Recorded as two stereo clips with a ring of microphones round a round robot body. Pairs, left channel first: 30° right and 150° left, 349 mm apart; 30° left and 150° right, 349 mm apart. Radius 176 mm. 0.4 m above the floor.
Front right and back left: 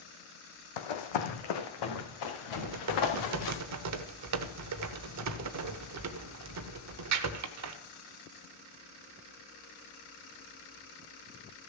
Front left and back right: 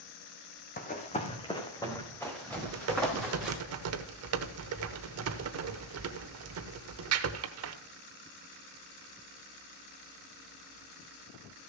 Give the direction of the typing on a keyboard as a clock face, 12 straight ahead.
6 o'clock.